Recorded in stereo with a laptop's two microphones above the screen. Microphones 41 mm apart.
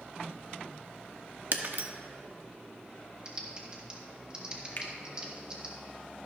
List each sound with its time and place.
1.5 s breaking glass: 50° right (ahead or behind), 1.0 m
3.2 s typing on a keyboard: 20° right (ahead or behind), 1.8 m
4.8 s a finger snap: 45° left (ahead or behind), 1.2 m